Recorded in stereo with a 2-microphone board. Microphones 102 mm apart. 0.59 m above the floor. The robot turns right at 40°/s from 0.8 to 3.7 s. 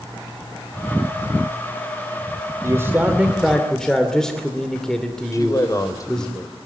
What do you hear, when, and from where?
2.6 s a man speaking: 35° right, 2.5 m; by 6.3 s 10° left, 2.5 m
5.3 s a man speaking: 35° left (ahead or behind), 3 m